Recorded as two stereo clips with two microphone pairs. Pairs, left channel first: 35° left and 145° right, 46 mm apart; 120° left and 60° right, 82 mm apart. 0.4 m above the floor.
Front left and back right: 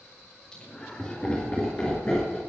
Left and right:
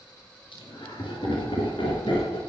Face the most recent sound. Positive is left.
turn(degrees=110)